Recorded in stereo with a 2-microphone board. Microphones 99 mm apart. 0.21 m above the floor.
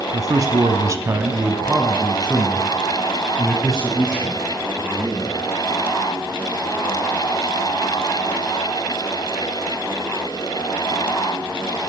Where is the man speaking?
40° right (ahead or behind), 1.5 m; by 5.3 s 10° left (ahead or behind), 5 m.